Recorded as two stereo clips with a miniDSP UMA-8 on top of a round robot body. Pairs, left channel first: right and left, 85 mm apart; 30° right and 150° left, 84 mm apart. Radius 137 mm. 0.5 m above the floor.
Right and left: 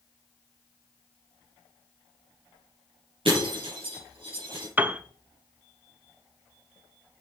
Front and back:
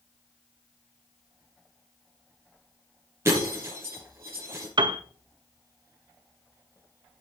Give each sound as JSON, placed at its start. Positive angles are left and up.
{"t": 3.2, "sound": "breaking glass", "azimuth_deg": 90, "distance_m": 6.5}
{"t": 4.8, "sound": "a piano", "azimuth_deg": 155, "distance_m": 1.0}